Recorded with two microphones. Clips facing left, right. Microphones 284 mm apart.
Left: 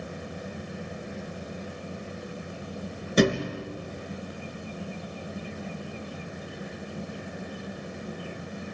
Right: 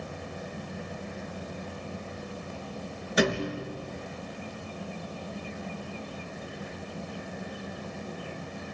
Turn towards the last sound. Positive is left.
turn(degrees=35)  # may be behind; listen again after turning